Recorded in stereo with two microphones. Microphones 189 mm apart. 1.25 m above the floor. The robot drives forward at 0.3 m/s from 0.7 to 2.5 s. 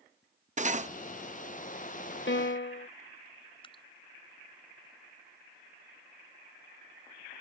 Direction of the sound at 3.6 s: 25° left (ahead or behind).